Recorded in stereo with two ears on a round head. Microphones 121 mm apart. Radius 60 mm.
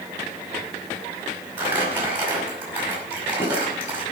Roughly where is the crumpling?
Centre.